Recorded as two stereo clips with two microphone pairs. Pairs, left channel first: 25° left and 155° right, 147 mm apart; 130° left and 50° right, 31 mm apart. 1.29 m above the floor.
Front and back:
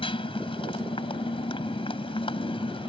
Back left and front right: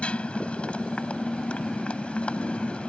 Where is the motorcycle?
80° left.